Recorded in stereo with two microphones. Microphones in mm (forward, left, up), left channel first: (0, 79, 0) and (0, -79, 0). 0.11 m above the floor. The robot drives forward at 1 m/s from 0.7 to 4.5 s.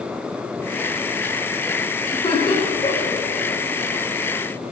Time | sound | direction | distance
2.1 | laughter | 35° left (ahead or behind) | 4.5 m